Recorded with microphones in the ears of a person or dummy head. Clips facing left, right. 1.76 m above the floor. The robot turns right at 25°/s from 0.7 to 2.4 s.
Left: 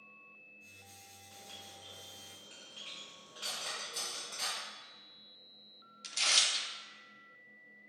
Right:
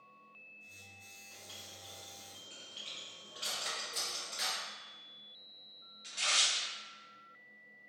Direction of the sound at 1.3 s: 25° left (ahead or behind).